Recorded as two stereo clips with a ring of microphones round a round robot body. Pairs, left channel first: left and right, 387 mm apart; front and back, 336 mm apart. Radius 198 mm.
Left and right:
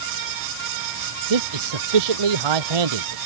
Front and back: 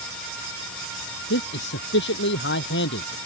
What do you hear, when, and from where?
1.3 s a man speaking: 65° right